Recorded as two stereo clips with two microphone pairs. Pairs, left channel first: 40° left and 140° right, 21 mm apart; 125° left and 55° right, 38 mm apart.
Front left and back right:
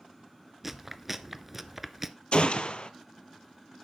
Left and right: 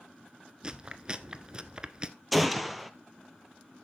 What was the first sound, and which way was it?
Chewing, 85° right.